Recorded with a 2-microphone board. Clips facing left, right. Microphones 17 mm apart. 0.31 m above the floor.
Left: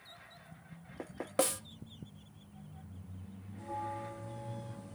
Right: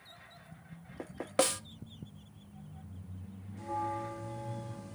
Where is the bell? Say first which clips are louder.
Right 4 dB; 65° right (ahead or behind), 4 m.